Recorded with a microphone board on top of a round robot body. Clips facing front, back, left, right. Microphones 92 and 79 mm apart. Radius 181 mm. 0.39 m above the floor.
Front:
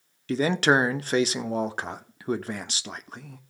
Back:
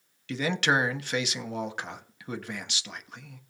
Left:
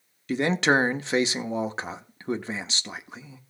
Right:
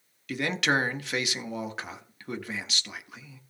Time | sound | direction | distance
0.3 | a man speaking | 40° left | 1.2 m